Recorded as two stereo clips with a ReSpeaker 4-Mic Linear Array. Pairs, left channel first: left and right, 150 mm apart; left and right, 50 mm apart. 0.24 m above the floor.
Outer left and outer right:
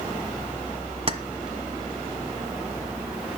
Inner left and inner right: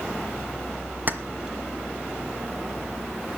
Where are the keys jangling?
40° right (ahead or behind), 1.3 m.